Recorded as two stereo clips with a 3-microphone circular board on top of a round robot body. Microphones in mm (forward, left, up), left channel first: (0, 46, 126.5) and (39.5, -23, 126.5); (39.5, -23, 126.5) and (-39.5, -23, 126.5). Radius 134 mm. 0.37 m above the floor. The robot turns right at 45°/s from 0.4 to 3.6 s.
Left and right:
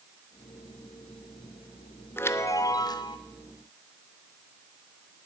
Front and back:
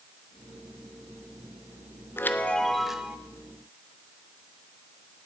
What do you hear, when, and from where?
2.2 s a chime: 60° left, 0.8 m; by 3.2 s 105° left, 0.8 m